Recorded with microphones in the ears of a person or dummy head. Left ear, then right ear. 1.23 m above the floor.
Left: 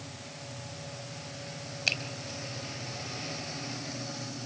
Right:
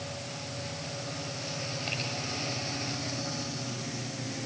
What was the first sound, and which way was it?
A finger snap, 75° left (ahead or behind).